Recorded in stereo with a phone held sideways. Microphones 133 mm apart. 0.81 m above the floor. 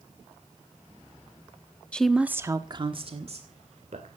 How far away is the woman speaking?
About 1.1 m.